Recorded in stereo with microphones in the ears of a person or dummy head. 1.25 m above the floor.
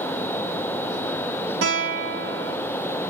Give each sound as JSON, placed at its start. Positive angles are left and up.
{"t": 1.6, "sound": "a guitar", "side_deg": -55, "distance_m": 2.0}